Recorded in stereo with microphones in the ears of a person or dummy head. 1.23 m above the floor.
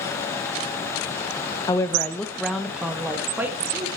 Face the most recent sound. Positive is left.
turn(degrees=-10)  # may be behind; listen again after turning